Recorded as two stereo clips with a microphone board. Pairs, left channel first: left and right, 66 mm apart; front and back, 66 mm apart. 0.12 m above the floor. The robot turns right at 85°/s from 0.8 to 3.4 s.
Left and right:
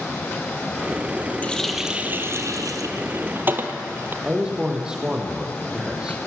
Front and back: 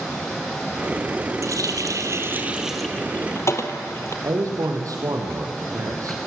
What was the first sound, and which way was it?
A running tap, 155° left.